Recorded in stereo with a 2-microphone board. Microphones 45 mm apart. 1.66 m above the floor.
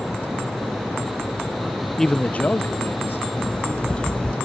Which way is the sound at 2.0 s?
10° left (ahead or behind).